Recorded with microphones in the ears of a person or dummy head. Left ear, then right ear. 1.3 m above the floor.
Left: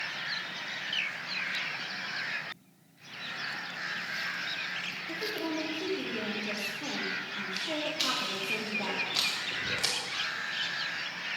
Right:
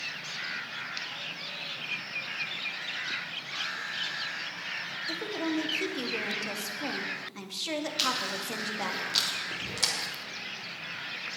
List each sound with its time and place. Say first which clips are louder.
5.1 s a woman speaking: right 3 dB; 65° right (ahead or behind), 2 m
8.0 s chewing: right 4 dB; 50° right (ahead or behind), 3 m